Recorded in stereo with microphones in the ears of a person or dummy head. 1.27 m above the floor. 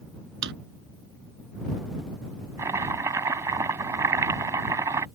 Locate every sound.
0.4 s a drawer: 70° right (ahead or behind)
2.6 s chopping: 15° right (ahead or behind)